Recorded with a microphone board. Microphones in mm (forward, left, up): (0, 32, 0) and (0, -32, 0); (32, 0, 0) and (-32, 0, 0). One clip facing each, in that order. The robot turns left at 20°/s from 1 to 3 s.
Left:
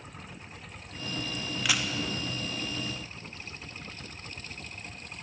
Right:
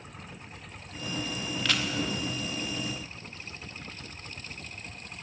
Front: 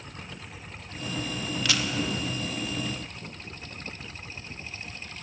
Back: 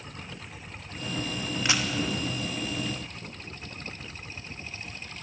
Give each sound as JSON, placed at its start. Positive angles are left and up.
{"t": 1.6, "sound": "a camera shutter", "azimuth_deg": 160, "distance_m": 0.8}